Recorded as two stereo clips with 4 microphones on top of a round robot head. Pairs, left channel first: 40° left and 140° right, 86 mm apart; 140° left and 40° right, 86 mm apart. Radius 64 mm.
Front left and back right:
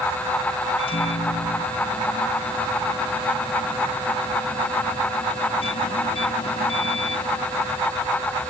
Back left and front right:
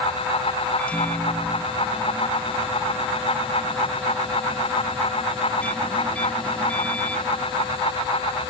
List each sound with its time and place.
0.8 s a microwave: 60° left